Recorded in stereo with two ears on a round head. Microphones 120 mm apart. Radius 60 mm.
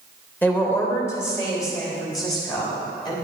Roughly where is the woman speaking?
Centre.